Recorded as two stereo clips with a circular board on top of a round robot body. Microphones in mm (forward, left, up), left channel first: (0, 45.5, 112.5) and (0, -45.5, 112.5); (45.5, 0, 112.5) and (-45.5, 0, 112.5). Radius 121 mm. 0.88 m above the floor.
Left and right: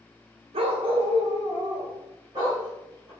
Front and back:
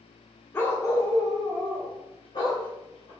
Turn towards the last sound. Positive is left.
turn(degrees=-35)